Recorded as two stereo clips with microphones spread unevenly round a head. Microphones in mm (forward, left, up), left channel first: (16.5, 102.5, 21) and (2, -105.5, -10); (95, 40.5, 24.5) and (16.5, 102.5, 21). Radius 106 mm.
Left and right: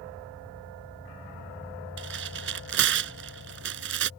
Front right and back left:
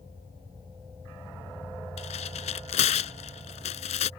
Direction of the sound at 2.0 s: 55° right.